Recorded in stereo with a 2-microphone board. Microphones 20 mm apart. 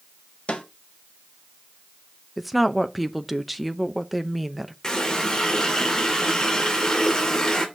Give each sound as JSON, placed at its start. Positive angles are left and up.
{"t": 0.5, "sound": "a snare drum", "side_deg": 65, "distance_m": 2.5}
{"t": 2.4, "sound": "a woman speaking", "side_deg": 0, "distance_m": 0.8}
{"t": 4.8, "sound": "a running tap", "side_deg": 30, "distance_m": 2.0}